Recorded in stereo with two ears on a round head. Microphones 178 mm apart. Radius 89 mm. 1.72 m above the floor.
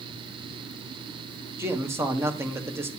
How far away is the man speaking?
About 1.5 m.